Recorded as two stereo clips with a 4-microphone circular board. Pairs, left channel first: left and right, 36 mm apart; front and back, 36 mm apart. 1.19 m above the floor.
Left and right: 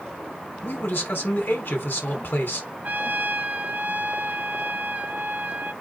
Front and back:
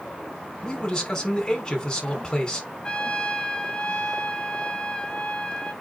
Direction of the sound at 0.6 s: 70° left.